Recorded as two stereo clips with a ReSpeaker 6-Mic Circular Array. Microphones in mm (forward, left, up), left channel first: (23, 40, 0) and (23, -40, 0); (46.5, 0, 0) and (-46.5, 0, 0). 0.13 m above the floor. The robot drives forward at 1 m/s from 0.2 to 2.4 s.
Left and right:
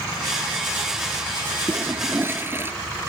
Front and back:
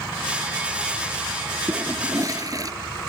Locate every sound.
1.7 s a toilet flushing: 130° right; by 2.7 s 145° right